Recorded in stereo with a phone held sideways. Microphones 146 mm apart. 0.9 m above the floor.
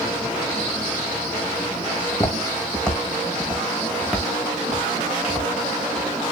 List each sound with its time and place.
2.0 s footsteps: 25° left (ahead or behind), 1.8 m; by 6.2 s 15° right (ahead or behind), 6 m